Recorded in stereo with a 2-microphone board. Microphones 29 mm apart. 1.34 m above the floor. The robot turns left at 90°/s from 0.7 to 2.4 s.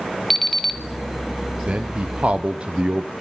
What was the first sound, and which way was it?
An alarm clock, 5° left (ahead or behind).